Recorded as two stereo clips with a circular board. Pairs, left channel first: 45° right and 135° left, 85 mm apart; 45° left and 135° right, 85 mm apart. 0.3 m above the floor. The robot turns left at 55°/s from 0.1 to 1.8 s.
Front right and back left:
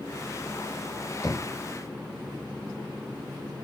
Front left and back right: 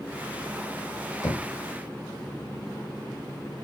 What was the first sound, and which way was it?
Knocking, 5° left.